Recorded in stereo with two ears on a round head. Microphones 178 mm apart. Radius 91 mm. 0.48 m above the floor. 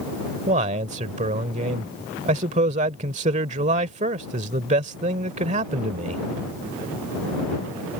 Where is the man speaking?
35° right (ahead or behind).